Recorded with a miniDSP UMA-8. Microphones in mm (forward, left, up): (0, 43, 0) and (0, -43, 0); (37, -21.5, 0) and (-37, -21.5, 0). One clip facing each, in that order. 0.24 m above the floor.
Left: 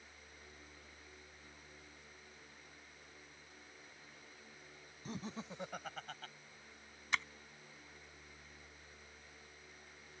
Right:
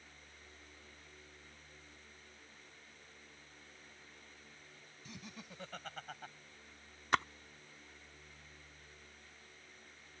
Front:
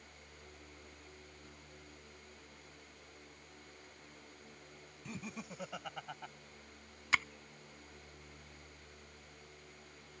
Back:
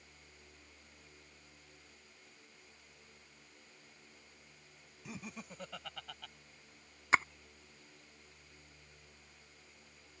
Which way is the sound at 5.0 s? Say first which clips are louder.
Left 7 dB, front 2 dB; 95° left.